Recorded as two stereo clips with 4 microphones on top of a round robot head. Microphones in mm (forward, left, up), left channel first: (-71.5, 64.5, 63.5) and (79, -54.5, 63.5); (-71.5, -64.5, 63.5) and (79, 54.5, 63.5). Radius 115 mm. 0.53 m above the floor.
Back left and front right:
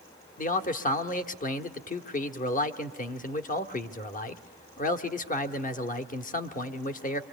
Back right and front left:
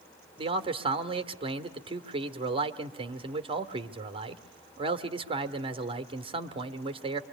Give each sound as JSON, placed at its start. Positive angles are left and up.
{"t": 0.4, "sound": "a man speaking", "azimuth_deg": 100, "distance_m": 1.3}